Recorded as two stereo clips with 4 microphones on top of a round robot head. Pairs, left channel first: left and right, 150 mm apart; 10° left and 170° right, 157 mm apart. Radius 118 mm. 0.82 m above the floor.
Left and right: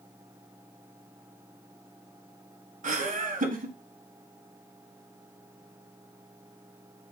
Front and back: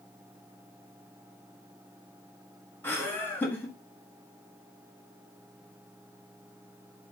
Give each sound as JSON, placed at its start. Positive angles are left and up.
{"t": 2.8, "sound": "laughter", "azimuth_deg": -70, "distance_m": 1.0}